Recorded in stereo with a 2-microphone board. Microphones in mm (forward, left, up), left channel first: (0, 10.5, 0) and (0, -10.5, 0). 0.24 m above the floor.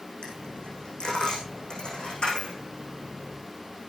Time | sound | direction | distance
0.2 | a dropped coin | 45° left (ahead or behind) | 6 m